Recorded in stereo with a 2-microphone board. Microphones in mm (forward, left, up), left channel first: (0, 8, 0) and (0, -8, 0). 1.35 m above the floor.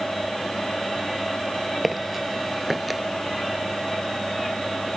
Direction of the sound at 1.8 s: 5° right (ahead or behind).